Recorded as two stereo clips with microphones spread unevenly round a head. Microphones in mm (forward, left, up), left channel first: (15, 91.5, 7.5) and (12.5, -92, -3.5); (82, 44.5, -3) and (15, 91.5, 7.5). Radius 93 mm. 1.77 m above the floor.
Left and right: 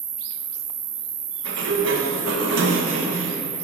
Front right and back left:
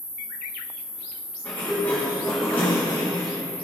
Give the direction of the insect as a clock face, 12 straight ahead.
5 o'clock.